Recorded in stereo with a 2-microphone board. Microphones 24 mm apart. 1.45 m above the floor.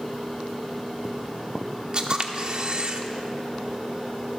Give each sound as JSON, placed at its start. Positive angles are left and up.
{"t": 1.9, "sound": "a camera shutter", "side_deg": -40, "distance_m": 1.3}